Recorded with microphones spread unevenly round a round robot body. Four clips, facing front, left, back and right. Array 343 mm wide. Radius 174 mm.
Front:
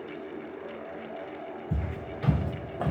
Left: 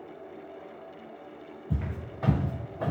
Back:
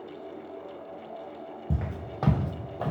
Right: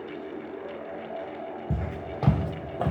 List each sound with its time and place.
1.7 s footsteps: 150° right, 0.8 m; by 2.9 s 75° right, 0.6 m